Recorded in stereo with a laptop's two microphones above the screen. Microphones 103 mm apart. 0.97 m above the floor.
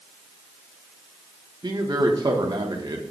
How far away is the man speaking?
About 1.0 m.